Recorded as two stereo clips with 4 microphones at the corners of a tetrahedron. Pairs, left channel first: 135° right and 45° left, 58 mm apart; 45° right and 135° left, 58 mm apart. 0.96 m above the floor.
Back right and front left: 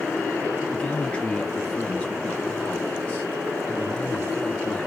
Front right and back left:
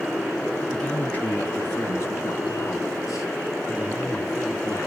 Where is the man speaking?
95° right, 0.7 m; by 4.9 s 65° right, 2.5 m.